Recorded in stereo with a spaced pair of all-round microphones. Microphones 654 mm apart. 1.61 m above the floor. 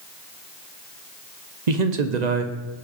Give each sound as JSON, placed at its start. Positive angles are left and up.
{"t": 1.7, "sound": "a man speaking", "side_deg": -85, "distance_m": 1.1}